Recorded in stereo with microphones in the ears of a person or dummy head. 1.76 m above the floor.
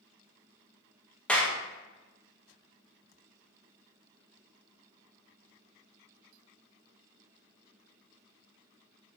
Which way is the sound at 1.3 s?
Centre (ahead or behind).